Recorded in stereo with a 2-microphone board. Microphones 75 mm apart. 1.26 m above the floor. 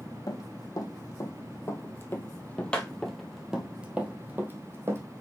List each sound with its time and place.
0.3 s running footsteps: 55° left (ahead or behind), 2 m; by 5.0 s 35° right (ahead or behind), 1.8 m